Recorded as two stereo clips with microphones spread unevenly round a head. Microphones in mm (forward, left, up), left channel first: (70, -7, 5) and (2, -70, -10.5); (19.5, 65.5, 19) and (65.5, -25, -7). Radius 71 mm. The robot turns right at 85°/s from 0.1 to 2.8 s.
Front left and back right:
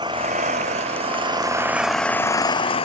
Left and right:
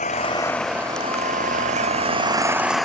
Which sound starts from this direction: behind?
An engine running, at 0.0 s.